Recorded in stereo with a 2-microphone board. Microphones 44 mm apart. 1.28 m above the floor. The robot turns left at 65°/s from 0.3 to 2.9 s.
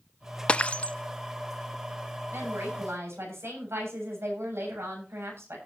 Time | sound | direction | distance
0.5 | breaking glass | 25° left (ahead or behind) | 0.5 m
2.3 | a woman speaking | 65° right | 7 m